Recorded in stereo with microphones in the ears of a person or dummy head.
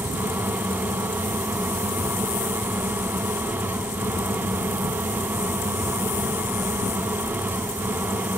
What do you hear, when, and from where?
0.0 s a fan: 10° right (ahead or behind), 0.8 m